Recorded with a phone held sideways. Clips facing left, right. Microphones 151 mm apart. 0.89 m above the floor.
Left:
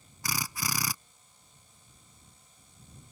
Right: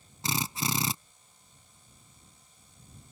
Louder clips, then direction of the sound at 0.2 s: Right 4 dB; 25° right (ahead or behind).